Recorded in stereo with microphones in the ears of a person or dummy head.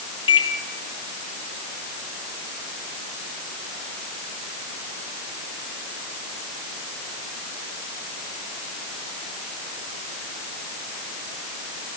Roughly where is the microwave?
Left.